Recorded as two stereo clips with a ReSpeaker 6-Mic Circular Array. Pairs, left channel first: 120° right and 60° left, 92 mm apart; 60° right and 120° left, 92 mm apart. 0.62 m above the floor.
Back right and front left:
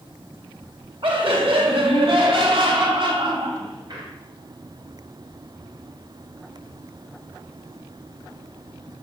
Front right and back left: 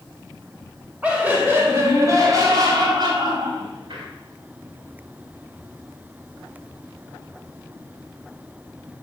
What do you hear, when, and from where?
1.0 s laughter: 45° left, 2.5 m; by 4.1 s 95° left, 3.5 m